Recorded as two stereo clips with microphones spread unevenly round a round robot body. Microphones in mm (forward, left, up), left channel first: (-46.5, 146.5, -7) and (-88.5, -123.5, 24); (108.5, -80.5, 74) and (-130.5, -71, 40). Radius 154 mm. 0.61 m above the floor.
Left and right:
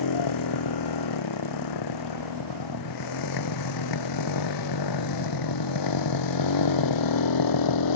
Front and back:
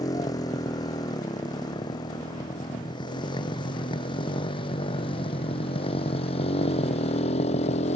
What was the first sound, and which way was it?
A motorcycle, 75° left.